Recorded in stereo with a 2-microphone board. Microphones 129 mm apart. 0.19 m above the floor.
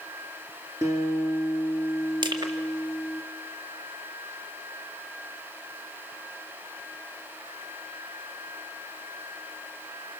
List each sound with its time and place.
0.8 s a guitar: 25° right (ahead or behind), 2 m
2.2 s crushing: 40° right (ahead or behind), 2 m